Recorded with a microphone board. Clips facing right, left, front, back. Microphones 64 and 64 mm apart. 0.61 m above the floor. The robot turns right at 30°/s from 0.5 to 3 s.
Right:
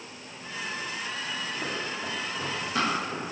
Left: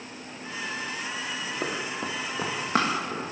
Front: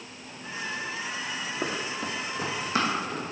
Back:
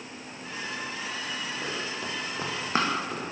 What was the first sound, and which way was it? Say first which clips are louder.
Running footsteps: left 2 dB, front 2 dB; 55° left.